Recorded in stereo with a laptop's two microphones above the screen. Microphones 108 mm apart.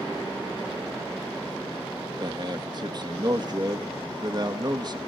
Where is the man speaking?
40° right (ahead or behind), 1.3 m.